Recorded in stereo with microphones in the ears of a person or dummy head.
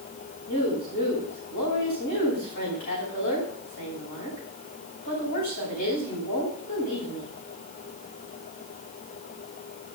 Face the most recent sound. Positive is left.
turn(degrees=45)  # may be behind; listen again after turning